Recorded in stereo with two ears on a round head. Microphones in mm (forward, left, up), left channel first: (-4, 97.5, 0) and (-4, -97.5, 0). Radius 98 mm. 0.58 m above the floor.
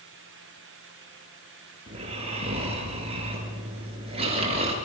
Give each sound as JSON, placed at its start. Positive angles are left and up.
{"t": 1.9, "sound": "snoring", "side_deg": -30, "distance_m": 7.0}